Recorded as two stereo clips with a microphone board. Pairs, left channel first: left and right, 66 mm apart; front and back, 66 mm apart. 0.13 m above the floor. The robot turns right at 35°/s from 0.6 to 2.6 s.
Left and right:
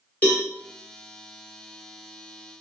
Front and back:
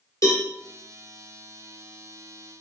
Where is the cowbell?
25° left, 1.3 m.